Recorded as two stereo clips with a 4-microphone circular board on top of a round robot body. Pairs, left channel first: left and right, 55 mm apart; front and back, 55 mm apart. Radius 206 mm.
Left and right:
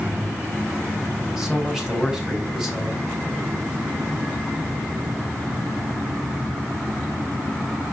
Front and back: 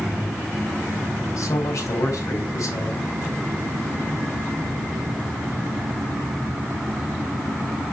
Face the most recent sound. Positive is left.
turn(degrees=-10)